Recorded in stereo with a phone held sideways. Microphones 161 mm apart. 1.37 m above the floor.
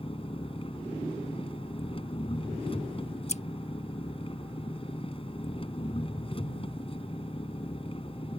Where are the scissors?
45° left (ahead or behind).